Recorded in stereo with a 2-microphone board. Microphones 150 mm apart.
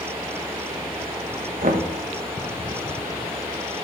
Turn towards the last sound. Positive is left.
turn(degrees=-60)  # may be behind; listen again after turning